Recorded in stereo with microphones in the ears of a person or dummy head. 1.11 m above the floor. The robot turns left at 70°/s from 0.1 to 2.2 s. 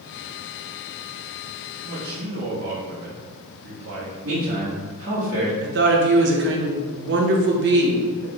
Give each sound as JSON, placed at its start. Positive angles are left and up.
{"t": 1.8, "sound": "a man speaking", "side_deg": -40, "distance_m": 1.1}
{"t": 4.2, "sound": "a man speaking", "side_deg": -70, "distance_m": 1.7}
{"t": 5.6, "sound": "a woman speaking", "side_deg": -55, "distance_m": 0.8}